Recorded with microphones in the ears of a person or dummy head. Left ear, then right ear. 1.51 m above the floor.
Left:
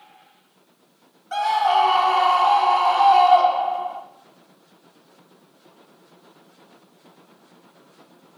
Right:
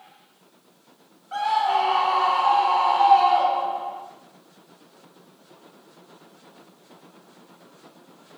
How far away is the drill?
No drill in this recording.